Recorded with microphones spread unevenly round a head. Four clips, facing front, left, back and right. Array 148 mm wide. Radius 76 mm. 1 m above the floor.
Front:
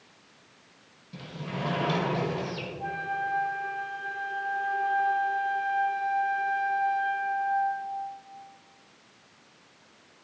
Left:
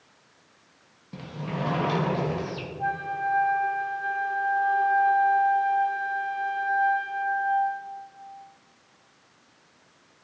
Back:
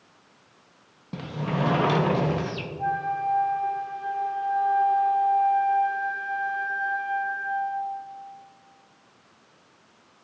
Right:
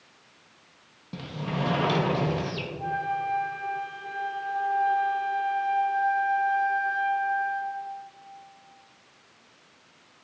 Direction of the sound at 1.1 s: 170° right.